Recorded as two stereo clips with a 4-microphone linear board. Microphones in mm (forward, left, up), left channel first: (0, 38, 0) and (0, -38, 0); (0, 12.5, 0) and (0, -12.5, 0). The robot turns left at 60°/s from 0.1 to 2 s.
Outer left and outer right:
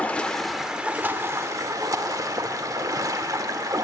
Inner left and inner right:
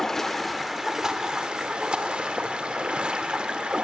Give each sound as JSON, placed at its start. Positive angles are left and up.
{"t": 0.0, "sound": "running water", "azimuth_deg": 25, "distance_m": 0.7}